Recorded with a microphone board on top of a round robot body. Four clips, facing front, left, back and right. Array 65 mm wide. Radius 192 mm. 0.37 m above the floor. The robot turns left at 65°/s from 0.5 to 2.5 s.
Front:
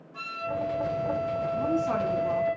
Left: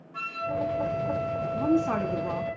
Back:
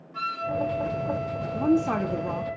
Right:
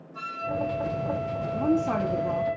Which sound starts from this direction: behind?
A woman speaking, at 1.5 s.